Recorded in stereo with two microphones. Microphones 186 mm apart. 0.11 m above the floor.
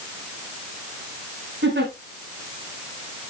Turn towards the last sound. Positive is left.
turn(degrees=-75)  # may be behind; listen again after turning